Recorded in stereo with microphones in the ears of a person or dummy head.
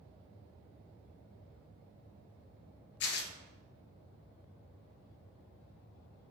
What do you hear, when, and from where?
3.0 s tearing paper: 60° left (ahead or behind), 1.4 m